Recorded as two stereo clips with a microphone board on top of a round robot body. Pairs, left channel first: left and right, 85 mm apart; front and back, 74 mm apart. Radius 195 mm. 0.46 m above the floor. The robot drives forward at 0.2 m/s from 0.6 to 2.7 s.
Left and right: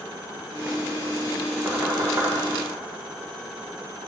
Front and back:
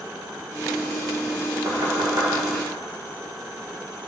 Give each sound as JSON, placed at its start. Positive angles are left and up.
{"t": 1.6, "sound": "knocking", "azimuth_deg": -150, "distance_m": 2.0}